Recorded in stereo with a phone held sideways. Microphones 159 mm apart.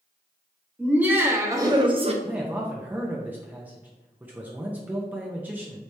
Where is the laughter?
5° right (ahead or behind), 1.2 m; by 2.1 s 40° right (ahead or behind), 0.7 m.